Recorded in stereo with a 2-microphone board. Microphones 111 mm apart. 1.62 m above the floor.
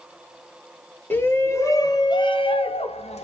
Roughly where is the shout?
Centre.